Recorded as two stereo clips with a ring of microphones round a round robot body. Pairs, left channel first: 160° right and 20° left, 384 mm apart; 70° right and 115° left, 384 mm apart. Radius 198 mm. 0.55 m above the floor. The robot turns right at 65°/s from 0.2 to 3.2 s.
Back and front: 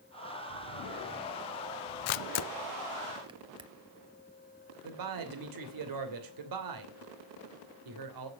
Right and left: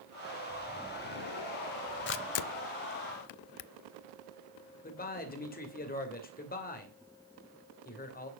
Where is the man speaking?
Straight ahead, 2.5 m.